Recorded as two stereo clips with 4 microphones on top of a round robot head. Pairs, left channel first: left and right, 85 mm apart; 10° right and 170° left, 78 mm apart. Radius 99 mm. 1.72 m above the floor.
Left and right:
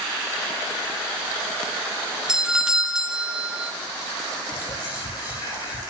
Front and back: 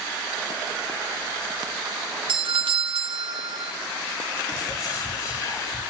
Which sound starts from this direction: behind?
A doorbell, at 2.3 s.